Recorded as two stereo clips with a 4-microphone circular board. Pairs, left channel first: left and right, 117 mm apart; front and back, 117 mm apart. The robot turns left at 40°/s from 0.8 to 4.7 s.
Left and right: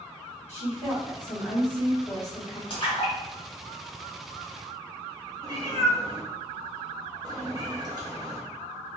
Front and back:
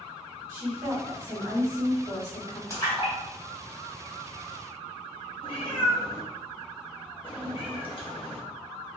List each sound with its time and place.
0.5 s a woman speaking: 120° left, 2.0 m; by 2.6 s 50° left, 2.0 m
2.7 s a splash: 60° left, 1.8 m; by 4.6 s 15° right, 1.8 m
5.4 s a cat meowing: 35° right, 1.0 m